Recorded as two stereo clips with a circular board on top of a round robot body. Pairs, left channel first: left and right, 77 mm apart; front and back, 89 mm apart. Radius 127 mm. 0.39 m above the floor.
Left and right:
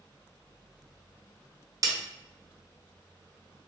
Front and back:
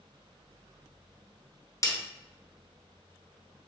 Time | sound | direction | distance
1.8 | a snare drum | 50° right | 1.0 m